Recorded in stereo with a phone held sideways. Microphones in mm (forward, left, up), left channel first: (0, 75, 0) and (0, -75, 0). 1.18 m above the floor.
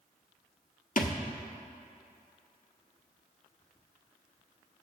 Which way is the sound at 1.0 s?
60° left (ahead or behind).